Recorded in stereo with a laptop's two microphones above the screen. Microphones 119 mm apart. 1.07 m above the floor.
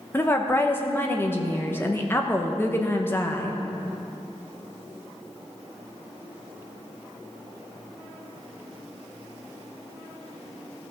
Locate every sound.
0.1 s a woman speaking: 20° left (ahead or behind), 0.9 m